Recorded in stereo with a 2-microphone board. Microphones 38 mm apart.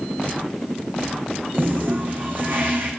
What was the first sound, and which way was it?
A toilet flushing, 60° right (ahead or behind).